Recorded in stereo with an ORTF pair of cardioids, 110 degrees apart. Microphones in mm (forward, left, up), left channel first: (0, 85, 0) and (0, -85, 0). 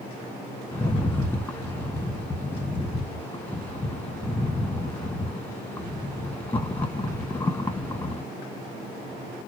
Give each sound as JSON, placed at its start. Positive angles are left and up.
{"t": 0.7, "sound": "a rattle", "azimuth_deg": 10, "distance_m": 1.3}